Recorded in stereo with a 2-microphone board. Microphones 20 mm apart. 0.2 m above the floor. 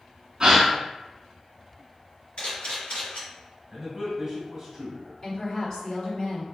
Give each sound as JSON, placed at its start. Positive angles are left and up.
{"t": 0.4, "sound": "a gasp", "side_deg": -45, "distance_m": 0.7}
{"t": 2.4, "sound": "a camera shutter", "side_deg": 60, "distance_m": 1.4}
{"t": 3.7, "sound": "a man speaking", "side_deg": -30, "distance_m": 1.1}
{"t": 5.2, "sound": "a woman speaking", "side_deg": 30, "distance_m": 1.9}